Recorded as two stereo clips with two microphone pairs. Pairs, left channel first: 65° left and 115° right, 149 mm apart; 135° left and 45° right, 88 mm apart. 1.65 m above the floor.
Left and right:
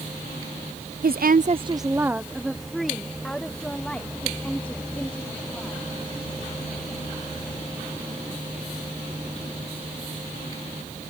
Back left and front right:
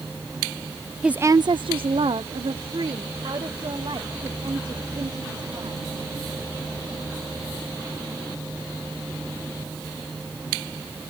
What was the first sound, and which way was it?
A woman speaking, 130° right.